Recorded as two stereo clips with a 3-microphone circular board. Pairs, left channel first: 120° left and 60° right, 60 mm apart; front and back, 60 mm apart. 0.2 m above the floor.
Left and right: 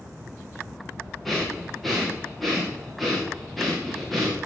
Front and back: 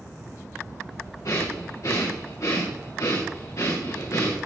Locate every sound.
1.2 s breathing: 30° left, 4 m